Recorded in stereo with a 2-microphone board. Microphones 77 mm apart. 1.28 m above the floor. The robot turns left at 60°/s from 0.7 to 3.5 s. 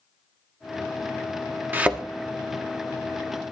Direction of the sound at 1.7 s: 25° right (ahead or behind).